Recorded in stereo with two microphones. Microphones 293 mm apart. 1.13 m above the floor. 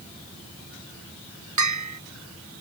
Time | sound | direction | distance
1.6 | a bell | 75° right (ahead or behind) | ?